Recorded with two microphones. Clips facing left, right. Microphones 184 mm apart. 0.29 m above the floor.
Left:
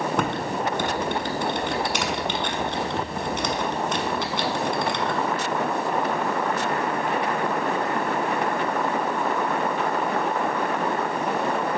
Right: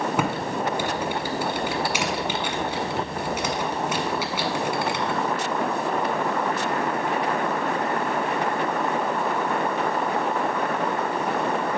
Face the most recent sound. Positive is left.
turn(degrees=-10)  # may be behind; listen again after turning